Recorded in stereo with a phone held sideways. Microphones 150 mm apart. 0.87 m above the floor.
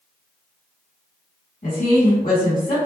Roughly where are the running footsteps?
No running footsteps in this recording.